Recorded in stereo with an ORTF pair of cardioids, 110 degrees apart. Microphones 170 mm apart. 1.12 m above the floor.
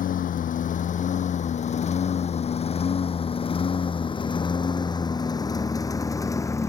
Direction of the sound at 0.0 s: 55° left.